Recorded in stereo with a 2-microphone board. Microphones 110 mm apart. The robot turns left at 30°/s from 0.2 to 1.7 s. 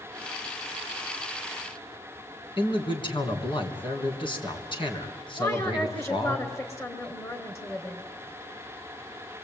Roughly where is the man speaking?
Left.